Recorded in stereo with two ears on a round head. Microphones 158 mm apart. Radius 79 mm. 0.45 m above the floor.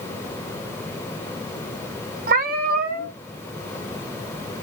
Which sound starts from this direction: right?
A cat meowing, at 2.3 s.